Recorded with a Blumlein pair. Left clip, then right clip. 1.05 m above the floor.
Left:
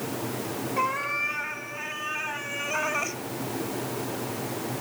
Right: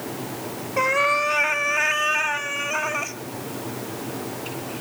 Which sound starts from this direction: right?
A cat meowing, at 0.8 s.